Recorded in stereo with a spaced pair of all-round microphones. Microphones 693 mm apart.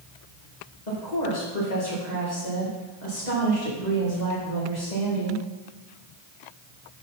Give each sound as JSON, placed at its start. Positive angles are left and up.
{"t": 0.9, "sound": "a woman speaking", "side_deg": 80, "distance_m": 2.0}